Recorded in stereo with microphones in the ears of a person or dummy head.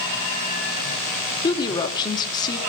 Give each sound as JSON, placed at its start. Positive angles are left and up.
{"t": 1.4, "sound": "a woman speaking", "side_deg": 25, "distance_m": 2.5}